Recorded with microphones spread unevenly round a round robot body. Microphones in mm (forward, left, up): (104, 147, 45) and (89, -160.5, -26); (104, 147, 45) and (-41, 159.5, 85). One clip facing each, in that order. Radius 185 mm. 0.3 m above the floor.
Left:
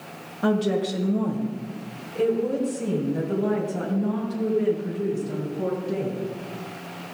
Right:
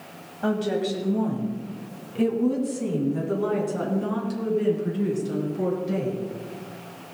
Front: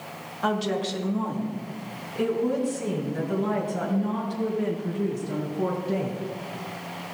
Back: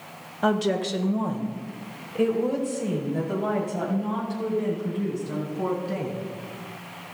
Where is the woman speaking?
170° left, 1.5 m; by 6.2 s 120° right, 4.5 m.